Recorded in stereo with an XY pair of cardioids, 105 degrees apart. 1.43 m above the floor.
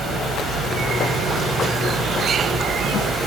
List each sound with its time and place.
0.0 s an insect: 65° right, 1.2 m